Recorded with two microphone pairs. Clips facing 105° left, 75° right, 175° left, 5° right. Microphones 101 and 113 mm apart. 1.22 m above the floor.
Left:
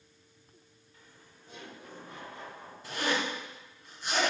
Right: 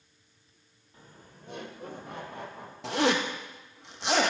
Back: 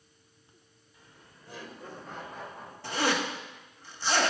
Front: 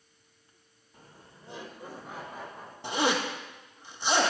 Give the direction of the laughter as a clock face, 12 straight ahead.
1 o'clock.